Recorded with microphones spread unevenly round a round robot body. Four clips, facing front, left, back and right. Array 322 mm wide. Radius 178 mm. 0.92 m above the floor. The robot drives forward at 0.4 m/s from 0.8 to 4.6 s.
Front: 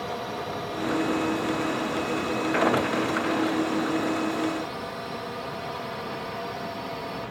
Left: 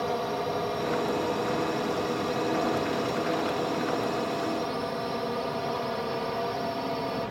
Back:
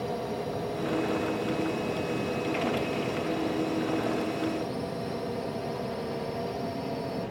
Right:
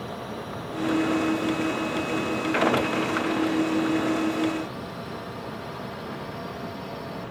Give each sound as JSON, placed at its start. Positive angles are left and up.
{"t": 0.0, "sound": "a drone", "azimuth_deg": 120}